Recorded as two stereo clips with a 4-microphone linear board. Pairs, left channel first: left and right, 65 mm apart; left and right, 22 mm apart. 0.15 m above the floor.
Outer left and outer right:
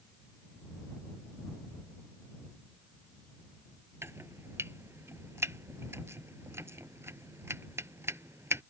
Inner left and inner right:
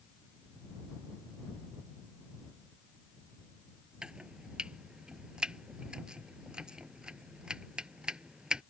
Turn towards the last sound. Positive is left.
turn(degrees=-45)  # may be behind; listen again after turning